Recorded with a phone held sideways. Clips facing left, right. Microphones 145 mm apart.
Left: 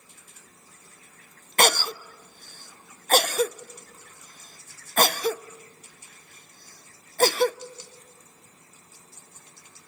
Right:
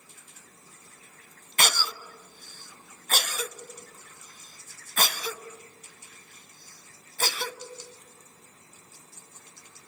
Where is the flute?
I don't hear a flute.